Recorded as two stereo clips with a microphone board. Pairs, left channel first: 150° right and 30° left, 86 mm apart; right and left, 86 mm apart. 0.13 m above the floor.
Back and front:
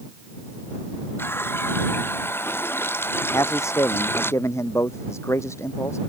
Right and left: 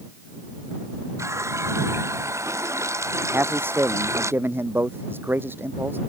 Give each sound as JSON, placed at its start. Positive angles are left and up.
{"t": 1.2, "sound": "a running tap", "azimuth_deg": 145}
{"t": 3.3, "sound": "a man speaking", "azimuth_deg": 155}